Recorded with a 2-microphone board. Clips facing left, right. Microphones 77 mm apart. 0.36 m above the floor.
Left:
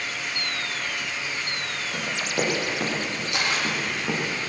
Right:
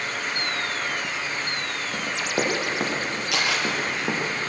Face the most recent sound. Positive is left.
turn(degrees=-70)  # may be behind; listen again after turning